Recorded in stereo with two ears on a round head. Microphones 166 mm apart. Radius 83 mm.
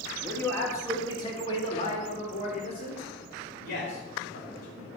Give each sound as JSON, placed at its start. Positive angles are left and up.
{"t": 0.2, "sound": "a man speaking", "side_deg": 5, "distance_m": 1.8}